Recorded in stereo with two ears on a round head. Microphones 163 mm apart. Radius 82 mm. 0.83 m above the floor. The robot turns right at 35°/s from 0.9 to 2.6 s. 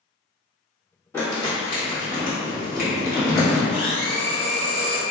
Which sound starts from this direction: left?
A blender, at 3.7 s.